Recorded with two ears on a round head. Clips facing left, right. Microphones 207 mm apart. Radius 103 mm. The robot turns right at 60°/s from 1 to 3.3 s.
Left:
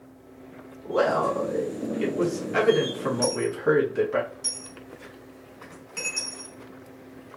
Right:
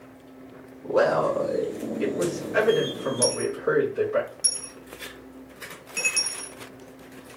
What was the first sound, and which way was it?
A man speaking, 45° right.